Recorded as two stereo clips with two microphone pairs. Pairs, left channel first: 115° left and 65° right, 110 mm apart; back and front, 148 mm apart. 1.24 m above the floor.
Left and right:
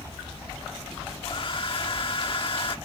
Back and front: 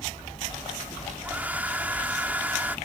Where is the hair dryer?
75° left.